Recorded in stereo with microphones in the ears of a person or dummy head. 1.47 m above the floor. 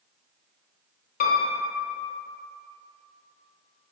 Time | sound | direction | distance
1.2 | a piano | 45° left (ahead or behind) | 0.7 m